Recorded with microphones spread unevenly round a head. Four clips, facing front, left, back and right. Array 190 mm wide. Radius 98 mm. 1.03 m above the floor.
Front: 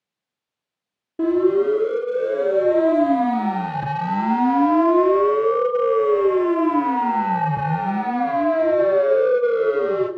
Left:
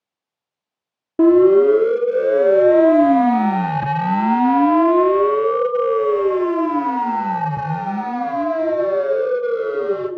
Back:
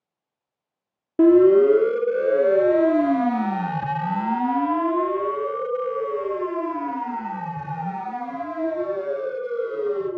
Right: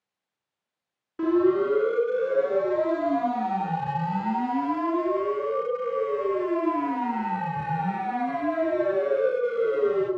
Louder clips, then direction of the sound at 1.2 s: Left 11 dB, back 4 dB; 125° left.